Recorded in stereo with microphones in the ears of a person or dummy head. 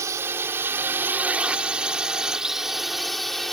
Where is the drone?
20° right (ahead or behind); by 3.5 s centre (ahead or behind).